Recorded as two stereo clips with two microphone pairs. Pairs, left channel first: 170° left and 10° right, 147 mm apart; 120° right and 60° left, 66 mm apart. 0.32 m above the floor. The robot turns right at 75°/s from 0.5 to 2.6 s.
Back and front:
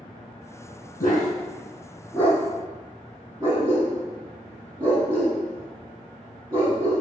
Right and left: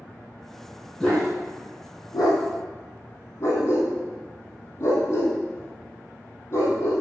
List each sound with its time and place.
1.0 s a dog barking: 155° left, 3 m; by 7.0 s 85° right, 3 m